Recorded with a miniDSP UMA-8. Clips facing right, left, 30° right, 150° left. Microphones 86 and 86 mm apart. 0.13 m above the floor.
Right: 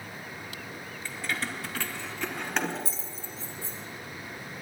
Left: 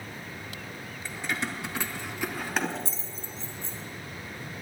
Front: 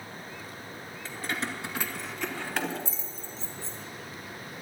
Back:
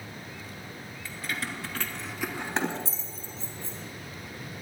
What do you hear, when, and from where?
1.1 s keys jangling: 20° left, 1.5 m; by 3.8 s 170° right, 1.8 m